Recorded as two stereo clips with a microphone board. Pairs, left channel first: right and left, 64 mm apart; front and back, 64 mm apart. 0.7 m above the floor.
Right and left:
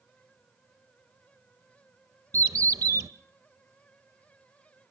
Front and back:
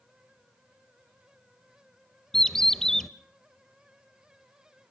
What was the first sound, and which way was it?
A bird, 85° left.